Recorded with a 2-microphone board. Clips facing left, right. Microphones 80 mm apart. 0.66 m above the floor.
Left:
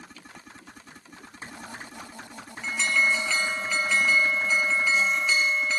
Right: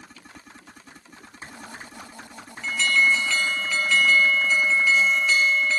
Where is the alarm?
15° left (ahead or behind), 2.5 m.